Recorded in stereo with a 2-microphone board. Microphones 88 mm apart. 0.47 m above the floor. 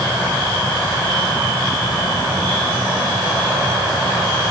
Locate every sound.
Only background noise.